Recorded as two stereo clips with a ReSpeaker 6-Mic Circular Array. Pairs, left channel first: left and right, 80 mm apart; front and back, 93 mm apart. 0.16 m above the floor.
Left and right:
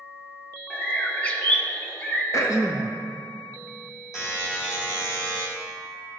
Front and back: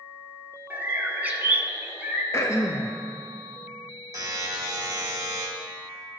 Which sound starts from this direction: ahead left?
Throat clearing, at 2.3 s.